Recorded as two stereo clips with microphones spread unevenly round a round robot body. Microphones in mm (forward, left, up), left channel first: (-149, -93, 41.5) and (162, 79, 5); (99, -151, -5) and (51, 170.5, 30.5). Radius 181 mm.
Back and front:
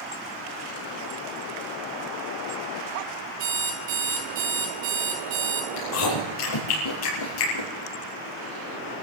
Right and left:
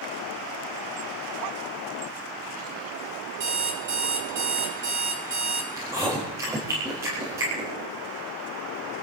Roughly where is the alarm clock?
Ahead left.